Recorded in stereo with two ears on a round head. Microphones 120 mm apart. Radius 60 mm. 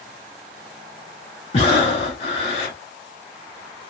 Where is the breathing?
45° left (ahead or behind), 1.4 m.